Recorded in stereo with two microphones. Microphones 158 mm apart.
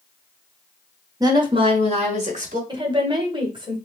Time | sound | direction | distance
1.2 | a woman speaking | 25° right (ahead or behind) | 1.0 m
2.7 | a woman speaking | 30° right (ahead or behind) | 1.3 m